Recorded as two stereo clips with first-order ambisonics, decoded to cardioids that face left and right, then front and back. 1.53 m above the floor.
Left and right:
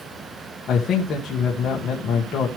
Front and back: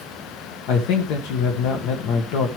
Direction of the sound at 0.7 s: 25° left.